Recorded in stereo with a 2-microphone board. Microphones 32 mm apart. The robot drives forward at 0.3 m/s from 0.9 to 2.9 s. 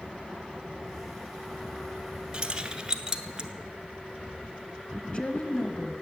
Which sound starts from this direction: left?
A woman speaking, at 5.0 s.